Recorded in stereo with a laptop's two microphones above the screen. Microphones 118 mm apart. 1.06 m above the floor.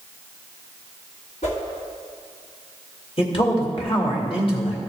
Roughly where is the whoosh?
Left.